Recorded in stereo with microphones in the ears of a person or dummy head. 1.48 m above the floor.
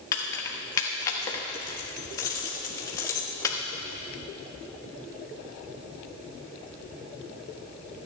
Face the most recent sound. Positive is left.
turn(degrees=30)  # may be behind; listen again after turning